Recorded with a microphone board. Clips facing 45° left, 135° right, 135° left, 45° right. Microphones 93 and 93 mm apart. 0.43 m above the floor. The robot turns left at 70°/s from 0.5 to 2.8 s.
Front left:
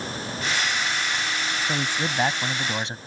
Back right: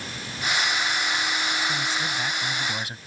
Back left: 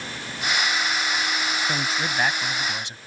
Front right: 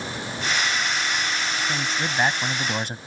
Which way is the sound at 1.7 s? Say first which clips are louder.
Front left 1 dB, even; 65° left.